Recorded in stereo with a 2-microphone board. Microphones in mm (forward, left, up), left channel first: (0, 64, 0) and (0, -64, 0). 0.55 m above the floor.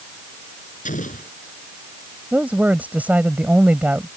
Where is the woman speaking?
10° right (ahead or behind).